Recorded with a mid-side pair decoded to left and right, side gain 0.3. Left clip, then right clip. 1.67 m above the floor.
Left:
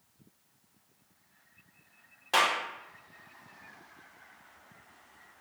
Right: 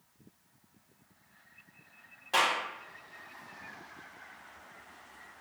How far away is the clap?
About 1.4 m.